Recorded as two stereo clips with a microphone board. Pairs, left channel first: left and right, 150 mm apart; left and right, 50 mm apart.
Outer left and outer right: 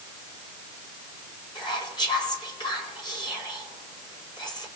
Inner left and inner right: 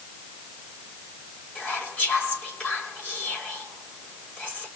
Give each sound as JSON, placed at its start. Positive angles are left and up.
{"t": 1.6, "sound": "whispering", "side_deg": 30, "distance_m": 4.0}